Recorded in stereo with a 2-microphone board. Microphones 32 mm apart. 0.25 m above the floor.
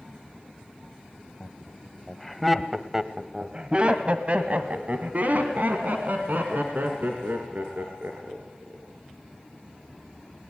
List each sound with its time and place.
1.4 s laughter: 25° left (ahead or behind), 1.2 m; by 8.9 s 65° right (ahead or behind), 4 m